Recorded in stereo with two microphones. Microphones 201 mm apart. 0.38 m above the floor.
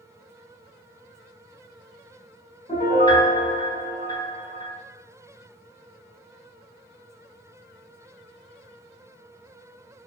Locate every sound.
2.7 s a piano: 25° left (ahead or behind), 1.8 m